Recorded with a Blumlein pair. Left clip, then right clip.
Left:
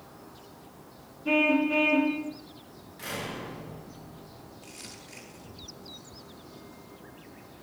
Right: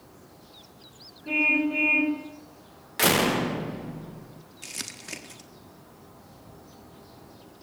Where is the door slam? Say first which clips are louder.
Right 14 dB; 50° right, 0.7 m.